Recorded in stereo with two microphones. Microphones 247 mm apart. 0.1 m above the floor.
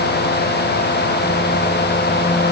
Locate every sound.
Only background noise.